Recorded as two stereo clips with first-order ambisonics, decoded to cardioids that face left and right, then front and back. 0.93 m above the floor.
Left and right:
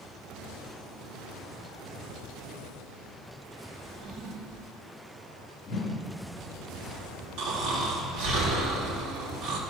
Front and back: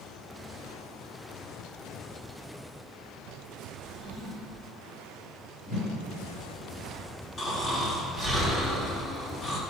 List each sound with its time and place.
3.8 s a drawer: 80° right, 1.3 m
5.7 s a whoosh: 50° left, 1.9 m
7.4 s snoring: 70° right, 2.0 m